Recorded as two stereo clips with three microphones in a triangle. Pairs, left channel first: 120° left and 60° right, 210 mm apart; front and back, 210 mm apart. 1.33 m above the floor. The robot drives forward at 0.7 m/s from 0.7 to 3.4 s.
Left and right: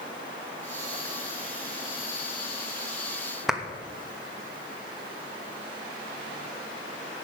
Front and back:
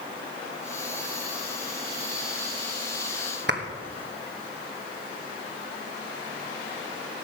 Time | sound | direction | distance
3.5 | a clap | 150° right | 1.2 m